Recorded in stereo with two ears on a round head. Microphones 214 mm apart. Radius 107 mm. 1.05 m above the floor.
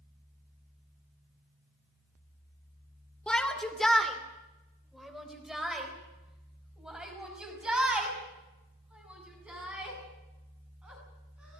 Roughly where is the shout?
Centre.